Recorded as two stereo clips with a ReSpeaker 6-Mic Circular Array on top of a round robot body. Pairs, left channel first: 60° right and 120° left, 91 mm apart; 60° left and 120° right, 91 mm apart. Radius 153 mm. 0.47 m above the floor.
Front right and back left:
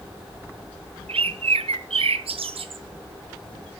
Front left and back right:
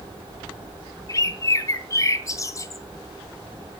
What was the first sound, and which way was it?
A bird, 115° left.